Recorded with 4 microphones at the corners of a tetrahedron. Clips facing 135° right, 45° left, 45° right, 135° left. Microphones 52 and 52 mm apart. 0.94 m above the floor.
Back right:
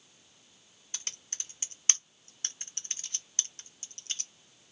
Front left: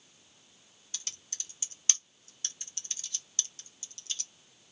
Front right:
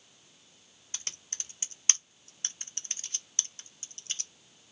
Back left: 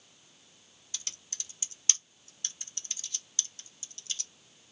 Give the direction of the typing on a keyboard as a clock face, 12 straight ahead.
3 o'clock.